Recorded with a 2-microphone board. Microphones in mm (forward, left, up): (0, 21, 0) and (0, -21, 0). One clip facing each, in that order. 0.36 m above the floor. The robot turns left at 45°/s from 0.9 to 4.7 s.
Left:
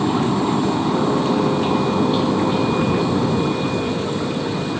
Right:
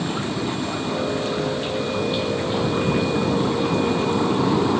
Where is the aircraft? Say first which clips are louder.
Left 7 dB; 45° left (ahead or behind); by 4.8 s 50° right (ahead or behind).